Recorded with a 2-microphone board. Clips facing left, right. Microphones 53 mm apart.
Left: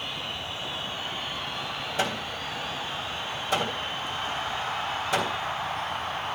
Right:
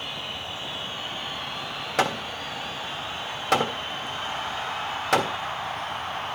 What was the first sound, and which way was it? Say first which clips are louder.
Hammering: right 5 dB; 65° right (ahead or behind).